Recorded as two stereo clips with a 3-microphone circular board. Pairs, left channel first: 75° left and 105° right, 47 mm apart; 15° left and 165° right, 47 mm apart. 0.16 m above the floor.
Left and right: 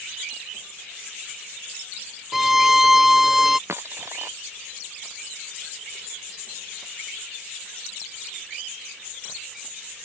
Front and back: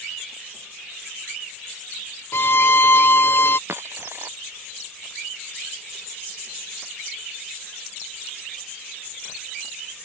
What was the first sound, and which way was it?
A violin, 20° right.